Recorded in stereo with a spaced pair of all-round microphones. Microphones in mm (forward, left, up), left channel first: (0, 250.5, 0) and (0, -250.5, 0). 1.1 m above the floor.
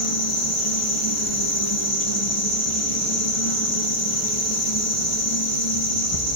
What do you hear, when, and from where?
0.0 s an insect: 75° left (ahead or behind), 3.5 m